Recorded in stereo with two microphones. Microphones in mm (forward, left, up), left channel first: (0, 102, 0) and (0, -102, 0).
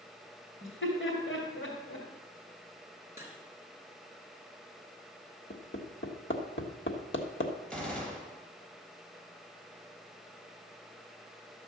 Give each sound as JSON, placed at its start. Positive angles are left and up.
{"t": 0.6, "sound": "laughter", "side_deg": 80, "distance_m": 2.5}
{"t": 3.2, "sound": "cutlery clinking", "side_deg": -15, "distance_m": 2.0}
{"t": 5.5, "sound": "hammering", "side_deg": 65, "distance_m": 1.3}
{"t": 7.7, "sound": "a gunshot", "side_deg": 5, "distance_m": 2.5}